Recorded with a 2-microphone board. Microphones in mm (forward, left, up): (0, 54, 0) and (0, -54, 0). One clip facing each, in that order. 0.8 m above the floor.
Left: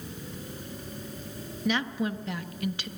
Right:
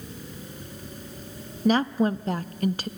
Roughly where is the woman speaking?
Right.